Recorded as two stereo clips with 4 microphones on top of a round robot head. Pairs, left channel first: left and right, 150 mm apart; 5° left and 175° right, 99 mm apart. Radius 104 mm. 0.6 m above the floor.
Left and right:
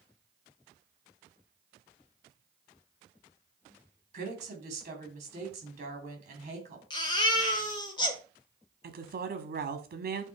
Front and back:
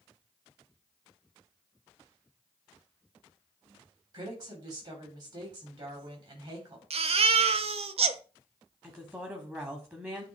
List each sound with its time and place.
4.1 s a woman speaking: 130° right, 2.5 m
6.9 s a baby crying: 160° left, 0.7 m
8.8 s a woman speaking: 105° right, 1.3 m